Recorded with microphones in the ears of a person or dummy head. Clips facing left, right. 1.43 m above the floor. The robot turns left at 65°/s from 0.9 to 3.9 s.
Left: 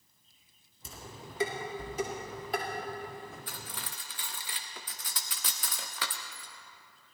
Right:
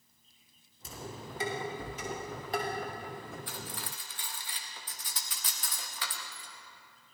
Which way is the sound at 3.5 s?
40° left (ahead or behind).